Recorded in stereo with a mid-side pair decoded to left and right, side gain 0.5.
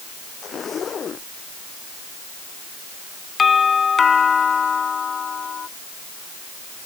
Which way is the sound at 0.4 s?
45° left.